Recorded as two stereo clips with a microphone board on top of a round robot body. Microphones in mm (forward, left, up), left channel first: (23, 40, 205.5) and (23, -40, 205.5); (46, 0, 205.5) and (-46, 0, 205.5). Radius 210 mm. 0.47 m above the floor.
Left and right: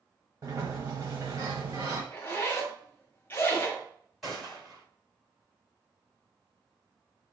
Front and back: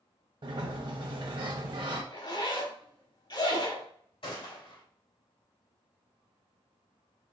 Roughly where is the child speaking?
No child speaking in this recording.